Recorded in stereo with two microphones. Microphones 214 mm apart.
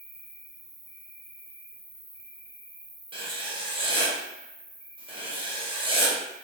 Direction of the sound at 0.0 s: 60° left (ahead or behind).